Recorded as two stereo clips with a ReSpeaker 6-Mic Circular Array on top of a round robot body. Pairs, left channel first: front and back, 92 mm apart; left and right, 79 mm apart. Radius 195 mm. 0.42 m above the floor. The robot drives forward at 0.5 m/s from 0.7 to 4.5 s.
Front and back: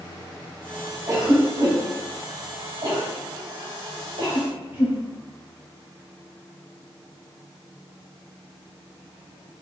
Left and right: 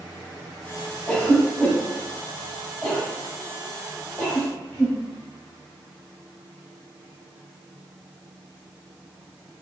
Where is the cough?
155° left, 1.8 m; by 5.0 s 170° left, 3 m.